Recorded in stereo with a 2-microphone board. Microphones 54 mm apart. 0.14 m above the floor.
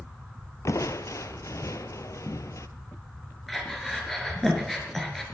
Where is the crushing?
75° left (ahead or behind), 0.6 m.